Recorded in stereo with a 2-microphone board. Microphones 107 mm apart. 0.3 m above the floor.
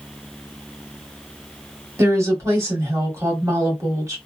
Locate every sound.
2.0 s a woman speaking: 30° right (ahead or behind), 1.7 m